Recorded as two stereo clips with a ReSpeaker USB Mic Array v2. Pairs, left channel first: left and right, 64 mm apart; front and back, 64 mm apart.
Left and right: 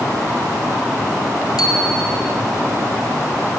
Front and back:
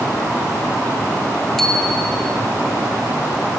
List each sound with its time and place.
1.6 s a bicycle bell: 85° left, 4 m